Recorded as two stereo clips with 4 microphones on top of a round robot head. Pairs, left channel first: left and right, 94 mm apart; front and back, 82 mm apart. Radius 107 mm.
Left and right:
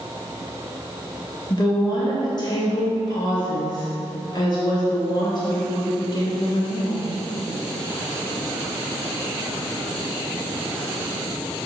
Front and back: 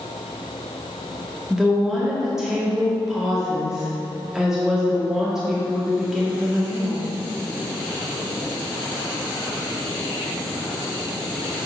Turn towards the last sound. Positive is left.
turn(degrees=95)